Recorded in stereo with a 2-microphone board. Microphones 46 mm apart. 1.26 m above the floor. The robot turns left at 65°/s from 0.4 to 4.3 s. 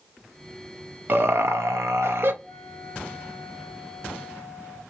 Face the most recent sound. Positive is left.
turn(degrees=125)